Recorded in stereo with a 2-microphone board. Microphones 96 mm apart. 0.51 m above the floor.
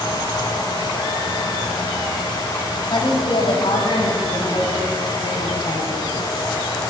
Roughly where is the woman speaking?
Left.